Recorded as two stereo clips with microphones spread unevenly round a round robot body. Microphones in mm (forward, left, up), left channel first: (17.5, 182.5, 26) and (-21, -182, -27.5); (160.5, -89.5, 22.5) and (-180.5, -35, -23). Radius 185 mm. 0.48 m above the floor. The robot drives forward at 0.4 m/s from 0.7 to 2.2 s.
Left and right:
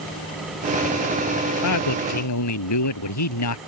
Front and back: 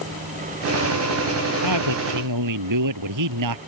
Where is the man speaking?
125° left; by 3.6 s 130° left.